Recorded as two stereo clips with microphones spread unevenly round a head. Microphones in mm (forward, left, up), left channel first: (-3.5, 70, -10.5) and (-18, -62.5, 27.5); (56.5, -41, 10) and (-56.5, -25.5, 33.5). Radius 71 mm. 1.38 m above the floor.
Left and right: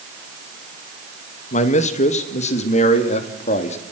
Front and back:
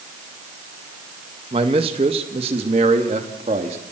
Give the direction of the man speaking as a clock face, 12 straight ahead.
8 o'clock.